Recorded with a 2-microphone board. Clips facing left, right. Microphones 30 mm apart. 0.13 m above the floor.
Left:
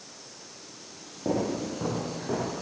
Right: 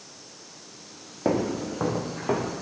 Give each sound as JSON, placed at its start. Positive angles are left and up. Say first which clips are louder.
{"t": 1.2, "sound": "footsteps", "louder": "right 3 dB", "side_deg": -85, "distance_m": 3.0}